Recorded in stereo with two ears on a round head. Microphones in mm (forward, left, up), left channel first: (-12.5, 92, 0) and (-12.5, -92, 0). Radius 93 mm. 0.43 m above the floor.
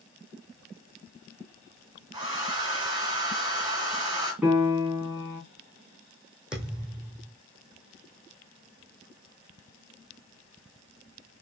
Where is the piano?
10° right (ahead or behind), 2.5 m.